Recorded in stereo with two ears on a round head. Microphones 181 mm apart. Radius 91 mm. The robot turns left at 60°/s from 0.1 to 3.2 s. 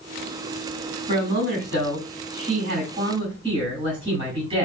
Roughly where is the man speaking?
Ahead right.